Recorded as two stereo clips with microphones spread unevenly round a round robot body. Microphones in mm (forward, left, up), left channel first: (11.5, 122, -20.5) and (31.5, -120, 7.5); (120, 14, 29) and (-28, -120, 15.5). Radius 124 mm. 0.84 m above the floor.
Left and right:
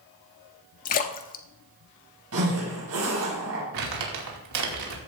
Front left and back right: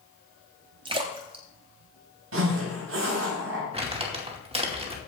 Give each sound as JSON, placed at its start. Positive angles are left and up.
{"t": 0.8, "sound": "a splash", "azimuth_deg": 150, "distance_m": 0.8}
{"t": 2.3, "sound": "a zipper", "azimuth_deg": -125, "distance_m": 5.0}
{"t": 3.7, "sound": "crumpling", "azimuth_deg": -80, "distance_m": 2.5}